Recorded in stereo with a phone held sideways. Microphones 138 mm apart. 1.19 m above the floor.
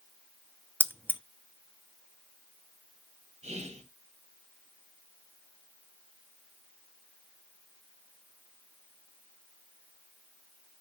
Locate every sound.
0.8 s keys jangling: 15° right (ahead or behind), 0.6 m
3.4 s whispering: 45° right (ahead or behind), 1.3 m